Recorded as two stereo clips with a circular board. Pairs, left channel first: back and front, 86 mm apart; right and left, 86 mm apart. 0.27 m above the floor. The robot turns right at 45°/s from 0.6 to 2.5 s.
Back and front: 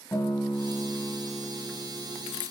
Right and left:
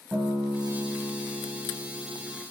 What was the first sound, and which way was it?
A guitar, 150° left.